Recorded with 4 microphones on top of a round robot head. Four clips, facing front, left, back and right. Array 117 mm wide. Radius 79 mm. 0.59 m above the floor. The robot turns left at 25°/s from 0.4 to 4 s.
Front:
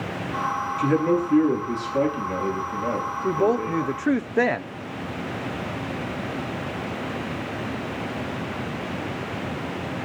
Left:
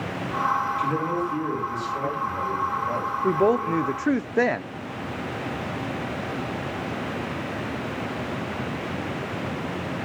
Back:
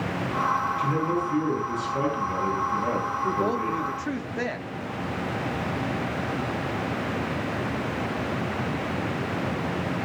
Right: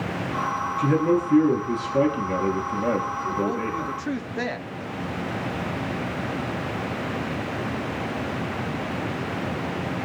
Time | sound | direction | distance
0.8 | a man speaking | 45° right | 9 m
3.2 | a woman speaking | 60° left | 0.9 m